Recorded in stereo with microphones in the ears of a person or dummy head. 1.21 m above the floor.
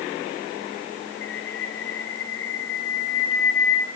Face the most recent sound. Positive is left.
turn(degrees=70)  # may be behind; listen again after turning